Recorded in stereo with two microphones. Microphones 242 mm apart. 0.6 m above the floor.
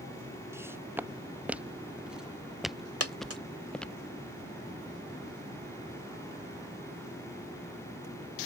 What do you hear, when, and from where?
0.5 s footsteps: 10° right (ahead or behind); by 4.0 s 5° left (ahead or behind)
3.0 s a dropped coin: 80° right